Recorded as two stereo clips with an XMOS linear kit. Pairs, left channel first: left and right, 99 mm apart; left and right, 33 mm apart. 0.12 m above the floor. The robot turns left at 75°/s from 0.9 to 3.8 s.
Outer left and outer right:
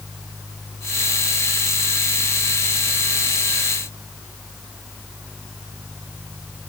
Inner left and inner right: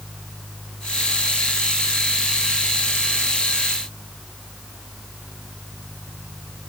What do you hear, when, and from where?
Only background noise.